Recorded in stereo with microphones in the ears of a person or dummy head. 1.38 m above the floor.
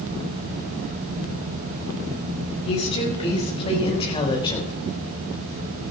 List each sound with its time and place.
2.6 s a woman speaking: 30° left (ahead or behind), 7 m; by 4.7 s 20° left (ahead or behind), 3.5 m